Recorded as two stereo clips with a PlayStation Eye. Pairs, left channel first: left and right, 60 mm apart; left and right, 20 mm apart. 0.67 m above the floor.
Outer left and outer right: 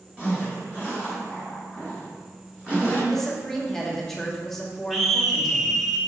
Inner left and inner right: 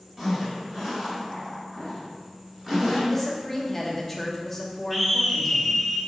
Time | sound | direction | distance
0.2 | a zipper | 25° right (ahead or behind) | 2.5 m
3.1 | a woman speaking | 5° left (ahead or behind) | 1.3 m
4.9 | a scream | centre (ahead or behind) | 1.1 m